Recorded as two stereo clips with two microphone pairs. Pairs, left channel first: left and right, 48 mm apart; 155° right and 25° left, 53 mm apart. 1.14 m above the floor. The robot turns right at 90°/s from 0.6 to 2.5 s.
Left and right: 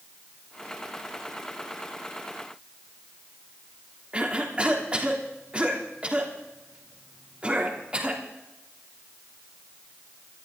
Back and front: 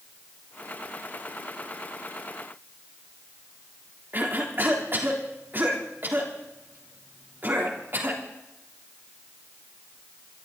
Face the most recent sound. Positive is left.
turn(degrees=-25)